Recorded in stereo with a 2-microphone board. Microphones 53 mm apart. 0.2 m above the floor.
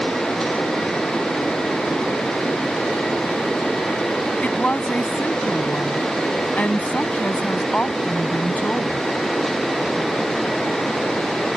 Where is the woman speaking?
30° left (ahead or behind).